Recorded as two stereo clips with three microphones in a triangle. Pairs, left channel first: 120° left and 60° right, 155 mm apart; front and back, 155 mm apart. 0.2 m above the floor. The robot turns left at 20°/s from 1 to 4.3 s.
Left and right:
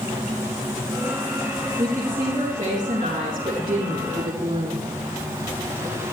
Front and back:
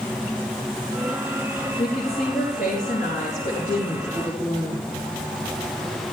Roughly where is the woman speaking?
Ahead.